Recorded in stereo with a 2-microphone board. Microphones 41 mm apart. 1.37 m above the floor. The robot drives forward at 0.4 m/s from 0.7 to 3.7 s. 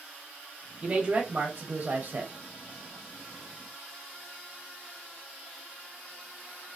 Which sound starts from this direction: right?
A man speaking, at 0.8 s.